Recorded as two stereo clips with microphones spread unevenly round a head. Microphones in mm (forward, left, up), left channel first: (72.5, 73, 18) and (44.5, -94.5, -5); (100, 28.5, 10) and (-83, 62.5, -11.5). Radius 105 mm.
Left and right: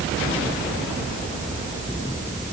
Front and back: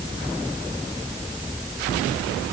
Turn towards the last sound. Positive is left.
No sound to turn to.